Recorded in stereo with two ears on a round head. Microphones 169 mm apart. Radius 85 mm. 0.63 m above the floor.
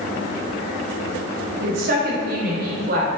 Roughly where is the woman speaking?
Right.